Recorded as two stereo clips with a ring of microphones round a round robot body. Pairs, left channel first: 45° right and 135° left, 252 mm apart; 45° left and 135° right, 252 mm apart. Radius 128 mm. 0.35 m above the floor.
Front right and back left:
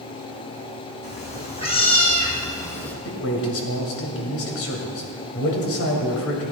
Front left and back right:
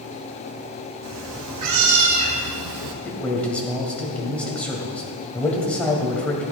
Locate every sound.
1.0 s a cat meowing: 110° right, 2 m; by 3.0 s 130° right, 1.2 m
3.0 s a man speaking: 40° right, 2 m